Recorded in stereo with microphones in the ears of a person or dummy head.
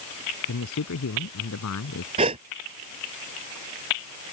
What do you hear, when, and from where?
0.5 s a man speaking: 85° left
2.2 s a gasp: 30° right (ahead or behind)